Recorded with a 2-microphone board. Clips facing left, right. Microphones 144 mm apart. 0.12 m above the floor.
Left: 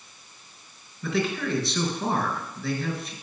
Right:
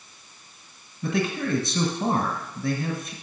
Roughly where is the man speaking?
Right.